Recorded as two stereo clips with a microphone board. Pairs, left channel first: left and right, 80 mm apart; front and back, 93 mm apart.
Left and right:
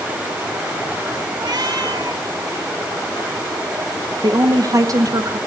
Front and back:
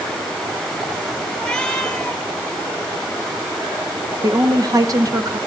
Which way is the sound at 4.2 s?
130° right.